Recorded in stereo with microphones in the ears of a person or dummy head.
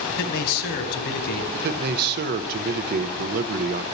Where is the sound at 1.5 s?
50° right (ahead or behind), 0.5 m.